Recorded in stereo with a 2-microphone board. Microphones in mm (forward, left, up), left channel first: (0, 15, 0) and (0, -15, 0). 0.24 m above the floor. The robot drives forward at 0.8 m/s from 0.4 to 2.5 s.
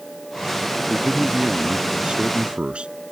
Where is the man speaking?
30° right (ahead or behind); by 2.9 s 45° right (ahead or behind).